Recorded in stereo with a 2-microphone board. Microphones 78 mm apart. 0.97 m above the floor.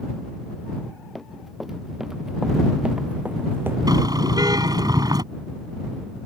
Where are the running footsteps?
Centre (ahead or behind); by 3.8 s 30° right (ahead or behind).